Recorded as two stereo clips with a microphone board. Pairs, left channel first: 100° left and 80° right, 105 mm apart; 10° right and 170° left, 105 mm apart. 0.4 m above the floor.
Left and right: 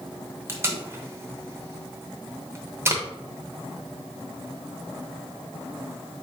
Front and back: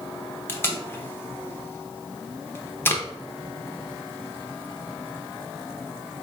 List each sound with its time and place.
0.5 s tape being pulled: 55° right, 0.8 m